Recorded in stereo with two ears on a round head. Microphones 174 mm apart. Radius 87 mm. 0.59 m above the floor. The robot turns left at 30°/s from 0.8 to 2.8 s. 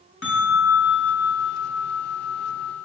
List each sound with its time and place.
0.2 s a bell: 105° left, 4 m; by 2.8 s 45° left, 4 m